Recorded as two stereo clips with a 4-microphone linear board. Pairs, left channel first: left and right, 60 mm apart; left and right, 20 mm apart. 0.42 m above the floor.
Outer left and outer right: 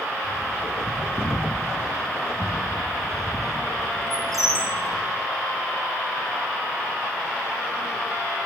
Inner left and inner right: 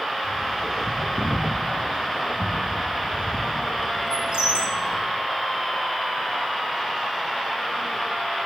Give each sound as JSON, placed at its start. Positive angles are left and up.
{"t": 0.2, "sound": "a bird", "side_deg": -75, "distance_m": 3.0}